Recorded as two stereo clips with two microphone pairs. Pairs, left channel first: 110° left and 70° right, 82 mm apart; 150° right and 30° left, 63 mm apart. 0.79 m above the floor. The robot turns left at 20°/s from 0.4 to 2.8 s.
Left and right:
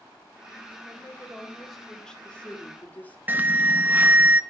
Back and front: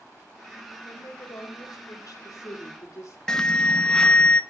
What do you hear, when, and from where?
0.8 s a woman speaking: 140° right, 3 m; by 3.2 s straight behind, 3 m
3.3 s an alarm: 80° right, 0.7 m